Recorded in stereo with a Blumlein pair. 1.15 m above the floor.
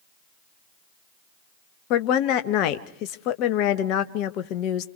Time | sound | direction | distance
1.9 | a woman speaking | 40° left | 1.4 m